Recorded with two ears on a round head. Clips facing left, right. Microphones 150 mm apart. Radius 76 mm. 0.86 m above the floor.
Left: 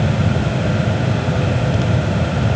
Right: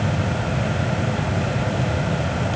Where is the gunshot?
No gunshot in this recording.